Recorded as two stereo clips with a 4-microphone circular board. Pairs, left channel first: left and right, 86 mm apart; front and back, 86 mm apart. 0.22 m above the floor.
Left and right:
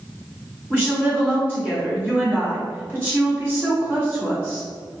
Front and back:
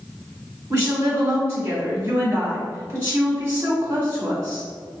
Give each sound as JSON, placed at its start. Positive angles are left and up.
{"t": 0.7, "sound": "a woman speaking", "azimuth_deg": -130, "distance_m": 1.3}